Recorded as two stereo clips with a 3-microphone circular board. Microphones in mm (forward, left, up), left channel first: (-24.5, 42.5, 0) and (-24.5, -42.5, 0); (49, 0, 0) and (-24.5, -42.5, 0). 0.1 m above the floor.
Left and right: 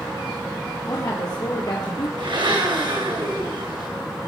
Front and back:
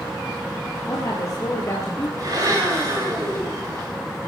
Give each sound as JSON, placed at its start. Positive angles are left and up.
{"t": 0.9, "sound": "a woman speaking", "azimuth_deg": 60, "distance_m": 3.0}
{"t": 2.2, "sound": "a blender", "azimuth_deg": -105, "distance_m": 9.5}